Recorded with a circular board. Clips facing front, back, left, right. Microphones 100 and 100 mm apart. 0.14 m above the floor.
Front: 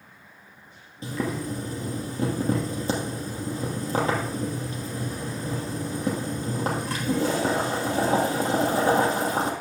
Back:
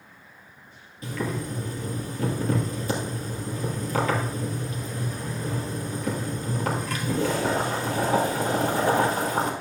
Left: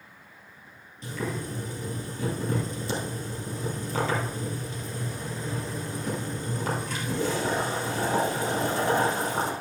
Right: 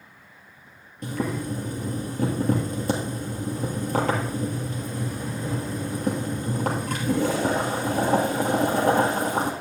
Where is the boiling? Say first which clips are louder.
Front 1 dB, right 5 dB; 60° right, 2.5 m.